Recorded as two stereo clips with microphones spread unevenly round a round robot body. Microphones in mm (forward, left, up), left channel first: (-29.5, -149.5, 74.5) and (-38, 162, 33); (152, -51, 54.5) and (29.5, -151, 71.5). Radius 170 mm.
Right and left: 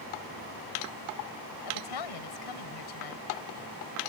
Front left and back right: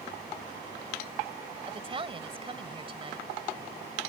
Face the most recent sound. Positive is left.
turn(degrees=-85)